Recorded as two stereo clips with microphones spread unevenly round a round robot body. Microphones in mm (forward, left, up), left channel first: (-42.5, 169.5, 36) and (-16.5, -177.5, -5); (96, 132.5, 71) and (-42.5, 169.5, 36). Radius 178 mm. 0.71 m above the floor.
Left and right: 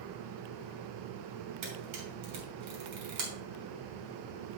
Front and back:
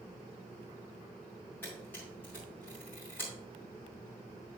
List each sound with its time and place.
1.6 s a camera shutter: 100° right, 3 m